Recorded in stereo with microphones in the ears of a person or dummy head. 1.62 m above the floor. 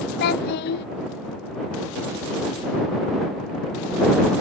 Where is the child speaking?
55° left (ahead or behind).